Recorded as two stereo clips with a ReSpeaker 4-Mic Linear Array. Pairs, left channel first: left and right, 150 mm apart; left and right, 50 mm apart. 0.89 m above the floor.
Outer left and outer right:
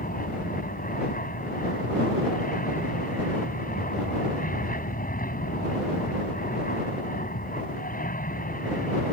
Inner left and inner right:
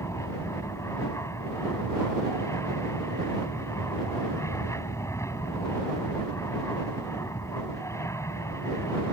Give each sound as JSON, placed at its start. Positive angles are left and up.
{"t": 0.0, "sound": "an aircraft", "side_deg": 70}